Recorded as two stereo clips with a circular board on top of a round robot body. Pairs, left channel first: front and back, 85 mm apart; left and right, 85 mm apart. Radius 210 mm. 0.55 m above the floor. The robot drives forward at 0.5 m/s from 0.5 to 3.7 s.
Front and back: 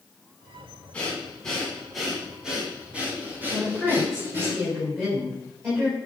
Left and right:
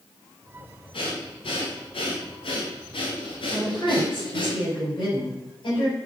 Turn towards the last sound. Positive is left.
turn(degrees=115)